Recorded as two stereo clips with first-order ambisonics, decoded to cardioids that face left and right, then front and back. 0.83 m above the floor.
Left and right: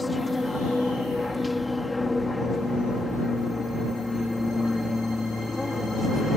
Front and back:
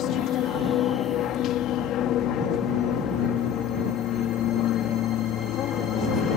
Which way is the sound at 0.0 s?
10° left.